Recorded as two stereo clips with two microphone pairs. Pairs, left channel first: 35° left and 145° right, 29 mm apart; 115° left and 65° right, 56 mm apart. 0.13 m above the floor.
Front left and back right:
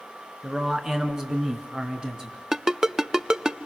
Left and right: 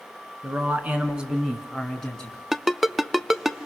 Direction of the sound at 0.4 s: 85° right.